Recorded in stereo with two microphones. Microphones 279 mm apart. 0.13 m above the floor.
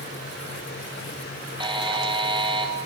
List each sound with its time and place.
1.6 s a buzzer: 15° right (ahead or behind), 2 m